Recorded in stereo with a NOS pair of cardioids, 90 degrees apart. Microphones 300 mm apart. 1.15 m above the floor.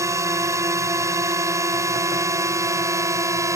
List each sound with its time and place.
0.0 s a drone: 10° right